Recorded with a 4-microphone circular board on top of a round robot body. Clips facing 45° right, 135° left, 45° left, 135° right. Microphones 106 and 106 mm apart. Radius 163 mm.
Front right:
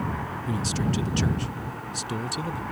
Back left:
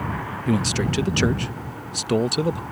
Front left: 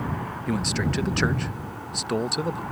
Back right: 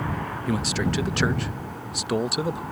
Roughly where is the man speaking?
Behind left.